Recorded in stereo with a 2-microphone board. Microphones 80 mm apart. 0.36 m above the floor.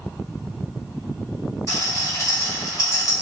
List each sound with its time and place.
1.7 s a rattle: 40° left (ahead or behind), 1.7 m